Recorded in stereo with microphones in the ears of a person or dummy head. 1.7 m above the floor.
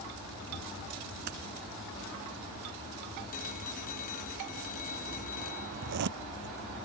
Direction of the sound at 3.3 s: 45° left (ahead or behind).